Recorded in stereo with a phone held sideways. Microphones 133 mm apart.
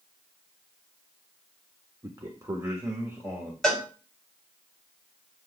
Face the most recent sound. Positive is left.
turn(degrees=5)  # may be behind; listen again after turning